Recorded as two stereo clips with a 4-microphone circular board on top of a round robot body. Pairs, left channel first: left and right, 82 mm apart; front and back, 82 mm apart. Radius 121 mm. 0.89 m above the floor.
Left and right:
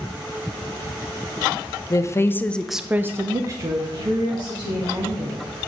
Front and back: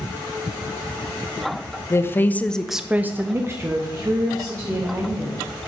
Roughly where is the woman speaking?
Ahead left.